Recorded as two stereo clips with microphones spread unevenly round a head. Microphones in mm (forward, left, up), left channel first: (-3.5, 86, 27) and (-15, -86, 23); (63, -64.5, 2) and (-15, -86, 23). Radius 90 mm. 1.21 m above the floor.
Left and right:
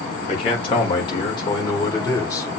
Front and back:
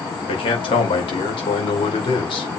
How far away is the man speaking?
About 5.5 m.